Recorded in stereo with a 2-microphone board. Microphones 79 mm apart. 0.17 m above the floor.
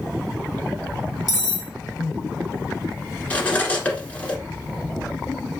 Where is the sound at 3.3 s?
20° left (ahead or behind), 1.1 m.